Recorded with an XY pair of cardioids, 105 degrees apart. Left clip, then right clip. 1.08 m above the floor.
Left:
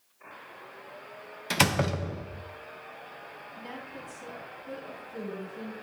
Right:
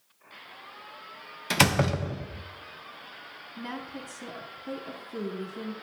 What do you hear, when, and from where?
1.5 s a door slam: 15° right, 0.7 m
3.6 s a woman speaking: 55° right, 2.5 m